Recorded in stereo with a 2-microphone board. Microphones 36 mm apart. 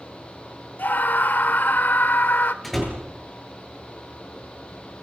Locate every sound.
0.8 s a scream: 60° left (ahead or behind), 1.5 m
2.6 s a door slam: 5° left (ahead or behind), 7.5 m